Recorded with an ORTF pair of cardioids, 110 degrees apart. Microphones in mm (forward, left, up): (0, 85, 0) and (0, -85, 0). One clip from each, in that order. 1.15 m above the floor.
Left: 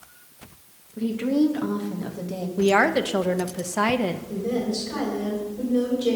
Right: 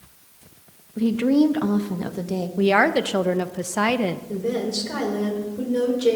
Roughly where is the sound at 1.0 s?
Ahead right.